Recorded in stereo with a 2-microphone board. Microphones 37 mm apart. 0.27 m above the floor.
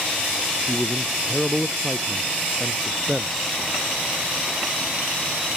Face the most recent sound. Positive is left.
turn(degrees=10)  # may be behind; listen again after turning